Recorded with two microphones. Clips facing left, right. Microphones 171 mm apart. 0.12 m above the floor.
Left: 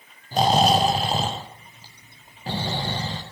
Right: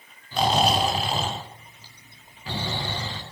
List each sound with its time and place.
0.3 s snoring: 40° left (ahead or behind), 3.5 m